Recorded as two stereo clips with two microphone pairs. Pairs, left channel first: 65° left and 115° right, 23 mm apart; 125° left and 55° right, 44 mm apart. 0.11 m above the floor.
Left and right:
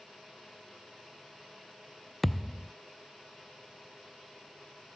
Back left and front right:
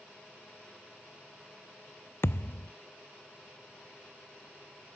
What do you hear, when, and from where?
2.2 s a thud: 150° left